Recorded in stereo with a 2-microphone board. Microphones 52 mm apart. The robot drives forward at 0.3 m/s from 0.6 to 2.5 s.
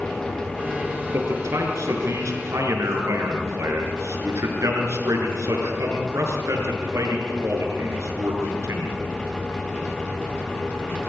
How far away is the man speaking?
About 6 m.